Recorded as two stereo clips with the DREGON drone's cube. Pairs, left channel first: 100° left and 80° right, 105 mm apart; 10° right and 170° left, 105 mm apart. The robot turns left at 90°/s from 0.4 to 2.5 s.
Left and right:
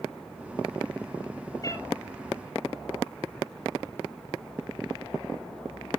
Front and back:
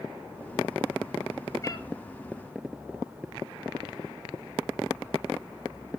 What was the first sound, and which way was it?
A cat meowing, 45° left.